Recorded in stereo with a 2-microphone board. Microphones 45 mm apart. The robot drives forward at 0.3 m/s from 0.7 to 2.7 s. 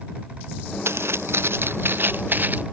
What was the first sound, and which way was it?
Footsteps, 75° right (ahead or behind).